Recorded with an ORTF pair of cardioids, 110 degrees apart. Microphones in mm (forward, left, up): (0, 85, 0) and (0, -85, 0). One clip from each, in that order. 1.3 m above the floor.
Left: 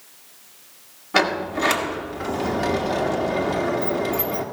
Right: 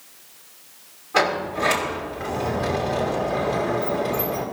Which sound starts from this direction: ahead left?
A sliding door, at 1.1 s.